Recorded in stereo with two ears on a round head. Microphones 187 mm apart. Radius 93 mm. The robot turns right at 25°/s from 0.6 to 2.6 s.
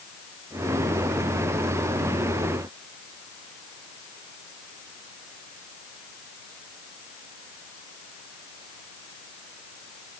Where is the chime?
No chime in this recording.